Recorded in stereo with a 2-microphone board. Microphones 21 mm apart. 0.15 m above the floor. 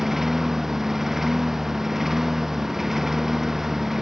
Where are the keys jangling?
I don't hear keys jangling.